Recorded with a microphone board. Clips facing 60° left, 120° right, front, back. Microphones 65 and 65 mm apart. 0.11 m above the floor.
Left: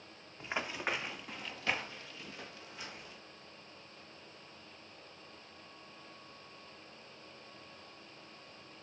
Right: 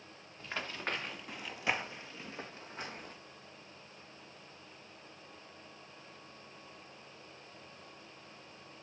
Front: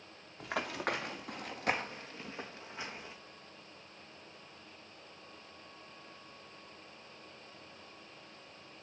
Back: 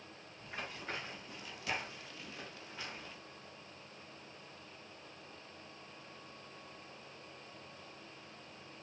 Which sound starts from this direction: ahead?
Running footsteps, at 0.4 s.